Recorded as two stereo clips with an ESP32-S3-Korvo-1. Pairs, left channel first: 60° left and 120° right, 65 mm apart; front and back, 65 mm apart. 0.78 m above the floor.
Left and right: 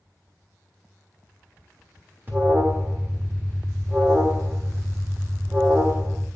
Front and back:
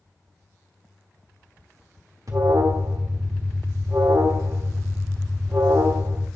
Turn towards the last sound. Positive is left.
turn(degrees=-175)